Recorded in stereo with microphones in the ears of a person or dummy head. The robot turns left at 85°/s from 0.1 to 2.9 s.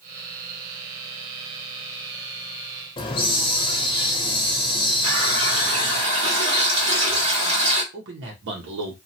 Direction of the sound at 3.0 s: 25° left (ahead or behind).